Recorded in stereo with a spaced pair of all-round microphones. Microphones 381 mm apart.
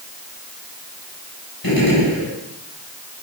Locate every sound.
1.6 s a gunshot: 70° left (ahead or behind), 7.5 m